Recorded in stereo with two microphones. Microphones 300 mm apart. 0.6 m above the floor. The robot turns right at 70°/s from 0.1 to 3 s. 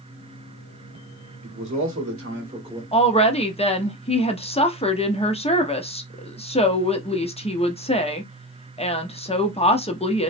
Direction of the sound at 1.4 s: 105° right.